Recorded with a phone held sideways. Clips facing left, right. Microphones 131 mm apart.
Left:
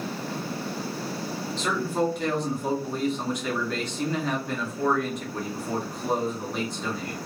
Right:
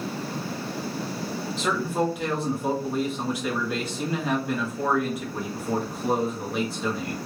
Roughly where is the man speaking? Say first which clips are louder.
Right 1 dB; centre.